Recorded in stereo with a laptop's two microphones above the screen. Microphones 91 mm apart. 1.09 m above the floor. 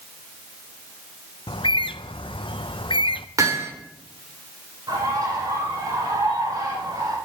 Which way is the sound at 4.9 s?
40° right (ahead or behind).